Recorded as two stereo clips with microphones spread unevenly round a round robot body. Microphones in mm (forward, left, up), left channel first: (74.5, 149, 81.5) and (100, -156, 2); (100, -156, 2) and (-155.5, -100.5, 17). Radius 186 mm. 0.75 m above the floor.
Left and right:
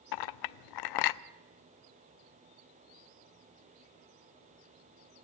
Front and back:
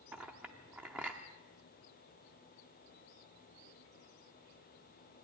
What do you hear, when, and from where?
0.1 s a clink: 80° left, 0.6 m